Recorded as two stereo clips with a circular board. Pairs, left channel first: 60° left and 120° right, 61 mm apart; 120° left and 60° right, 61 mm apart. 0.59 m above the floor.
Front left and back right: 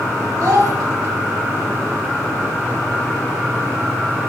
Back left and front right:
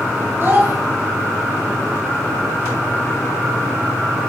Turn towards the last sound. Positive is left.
turn(degrees=-105)